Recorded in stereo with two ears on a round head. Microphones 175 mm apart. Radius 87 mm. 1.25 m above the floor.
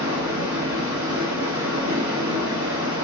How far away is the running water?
About 1.1 m.